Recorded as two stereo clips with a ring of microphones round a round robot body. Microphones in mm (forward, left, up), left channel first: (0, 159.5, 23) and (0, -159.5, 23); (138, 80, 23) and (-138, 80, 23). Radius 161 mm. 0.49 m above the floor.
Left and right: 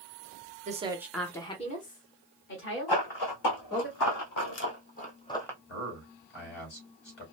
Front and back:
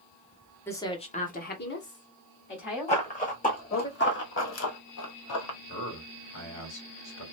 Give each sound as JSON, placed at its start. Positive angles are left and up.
{"t": 0.7, "sound": "a woman speaking", "azimuth_deg": -70, "distance_m": 0.9}
{"t": 2.9, "sound": "running footsteps", "azimuth_deg": 65, "distance_m": 2.0}
{"t": 5.7, "sound": "a man speaking", "azimuth_deg": 40, "distance_m": 3.0}